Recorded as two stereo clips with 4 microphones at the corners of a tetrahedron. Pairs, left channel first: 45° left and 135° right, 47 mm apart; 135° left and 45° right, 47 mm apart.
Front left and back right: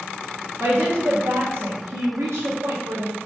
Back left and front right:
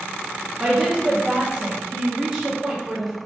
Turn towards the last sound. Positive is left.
turn(degrees=-125)